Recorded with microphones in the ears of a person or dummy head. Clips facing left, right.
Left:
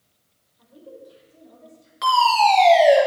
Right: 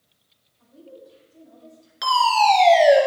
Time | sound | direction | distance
0.6 | a woman speaking | 80° left | 4.5 m
2.0 | a fire alarm | 5° right (ahead or behind) | 3 m